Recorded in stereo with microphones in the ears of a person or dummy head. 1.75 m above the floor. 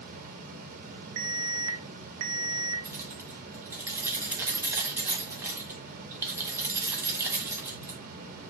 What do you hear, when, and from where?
0.0 s a fan: 40° right (ahead or behind), 1.6 m
1.2 s an alarm: 75° right (ahead or behind), 1.2 m
2.9 s keys jangling: 10° right (ahead or behind), 1.2 m